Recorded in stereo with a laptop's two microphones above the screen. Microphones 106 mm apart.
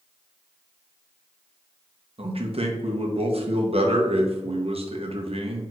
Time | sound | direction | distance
2.2 | a man speaking | 65° right (ahead or behind) | 0.7 m